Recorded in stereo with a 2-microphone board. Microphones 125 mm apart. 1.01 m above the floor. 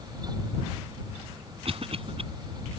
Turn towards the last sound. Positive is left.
turn(degrees=-55)  # may be behind; listen again after turning